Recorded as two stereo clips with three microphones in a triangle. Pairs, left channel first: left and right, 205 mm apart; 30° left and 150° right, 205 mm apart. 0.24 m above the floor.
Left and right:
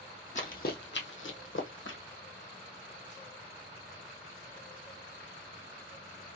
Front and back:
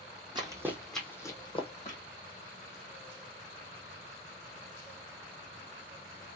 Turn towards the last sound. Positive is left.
turn(degrees=80)